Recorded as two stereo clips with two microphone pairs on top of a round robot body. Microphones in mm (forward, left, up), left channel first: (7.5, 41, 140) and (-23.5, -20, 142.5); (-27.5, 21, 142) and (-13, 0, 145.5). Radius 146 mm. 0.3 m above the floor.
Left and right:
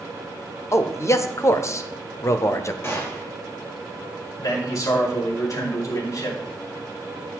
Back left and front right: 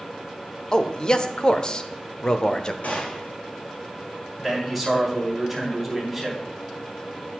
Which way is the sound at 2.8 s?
115° left.